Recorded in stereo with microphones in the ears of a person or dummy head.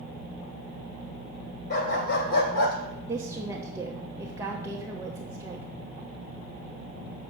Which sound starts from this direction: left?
A dog barking, at 1.7 s.